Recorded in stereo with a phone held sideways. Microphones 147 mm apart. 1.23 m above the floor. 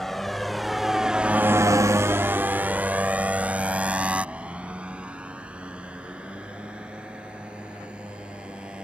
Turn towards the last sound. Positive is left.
turn(degrees=-10)  # may be behind; listen again after turning